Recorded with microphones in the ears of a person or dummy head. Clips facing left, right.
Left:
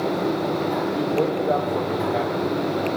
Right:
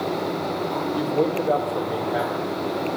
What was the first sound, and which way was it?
A man speaking, 5° right (ahead or behind).